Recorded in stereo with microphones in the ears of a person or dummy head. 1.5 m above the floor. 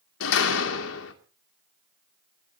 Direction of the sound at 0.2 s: 75° left (ahead or behind).